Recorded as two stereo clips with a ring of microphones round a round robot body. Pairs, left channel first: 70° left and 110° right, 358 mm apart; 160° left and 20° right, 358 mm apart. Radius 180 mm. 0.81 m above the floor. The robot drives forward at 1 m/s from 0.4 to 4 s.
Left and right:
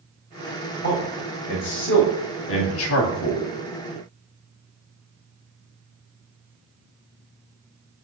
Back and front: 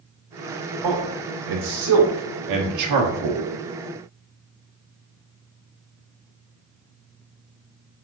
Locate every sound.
0.8 s a man speaking: 5° left, 3.5 m; by 3.5 s 30° left, 0.9 m